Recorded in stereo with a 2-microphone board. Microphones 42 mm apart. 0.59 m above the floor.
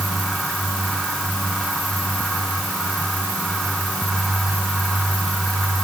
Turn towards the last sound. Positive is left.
No sound to turn to.